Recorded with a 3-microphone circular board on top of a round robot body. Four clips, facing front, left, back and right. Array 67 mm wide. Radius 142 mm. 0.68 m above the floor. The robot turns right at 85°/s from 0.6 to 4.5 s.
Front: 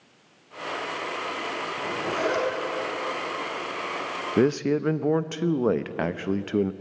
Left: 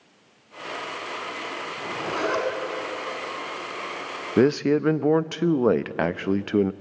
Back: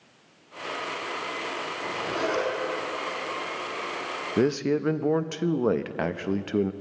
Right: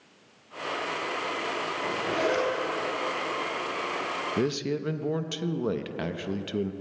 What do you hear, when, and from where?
1.8 s a zipper: 40° left, 5.5 m; by 2.5 s 100° left, 5.5 m
4.4 s a man speaking: 75° left, 0.7 m; by 6.7 s 85° left, 0.7 m